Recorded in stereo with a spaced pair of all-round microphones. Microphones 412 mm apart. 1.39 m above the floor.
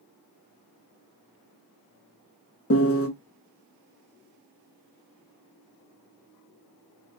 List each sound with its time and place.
2.7 s a piano: 35° left (ahead or behind), 0.8 m